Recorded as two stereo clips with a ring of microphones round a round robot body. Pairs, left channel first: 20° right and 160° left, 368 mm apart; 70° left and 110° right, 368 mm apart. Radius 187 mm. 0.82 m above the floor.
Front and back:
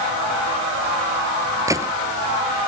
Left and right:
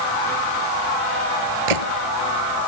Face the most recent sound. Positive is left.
turn(degrees=-120)